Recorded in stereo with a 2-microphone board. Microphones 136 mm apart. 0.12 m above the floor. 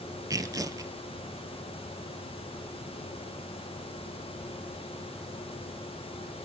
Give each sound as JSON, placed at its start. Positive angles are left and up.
{"t": 0.3, "sound": "tearing paper", "side_deg": -25, "distance_m": 0.5}